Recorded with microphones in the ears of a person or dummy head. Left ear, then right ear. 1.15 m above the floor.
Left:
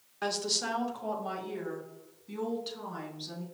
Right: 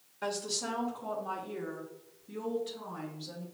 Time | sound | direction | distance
0.2 | a woman speaking | 30° left (ahead or behind) | 0.8 m